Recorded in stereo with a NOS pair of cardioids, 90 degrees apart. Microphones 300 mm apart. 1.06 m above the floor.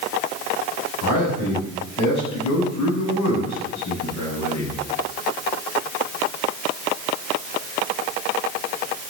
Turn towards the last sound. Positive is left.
turn(degrees=70)